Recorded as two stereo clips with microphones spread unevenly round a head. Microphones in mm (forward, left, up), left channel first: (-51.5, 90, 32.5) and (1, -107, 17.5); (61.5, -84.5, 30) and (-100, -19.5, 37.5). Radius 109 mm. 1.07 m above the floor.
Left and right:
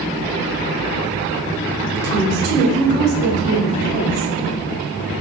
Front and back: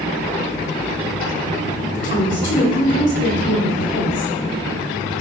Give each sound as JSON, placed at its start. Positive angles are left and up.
{"t": 1.9, "sound": "a woman speaking", "azimuth_deg": -30, "distance_m": 7.0}